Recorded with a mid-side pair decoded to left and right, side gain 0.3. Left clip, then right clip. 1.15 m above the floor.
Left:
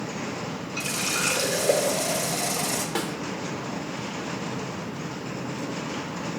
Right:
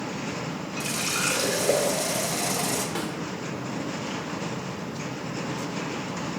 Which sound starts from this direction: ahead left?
A snare drum, at 3.0 s.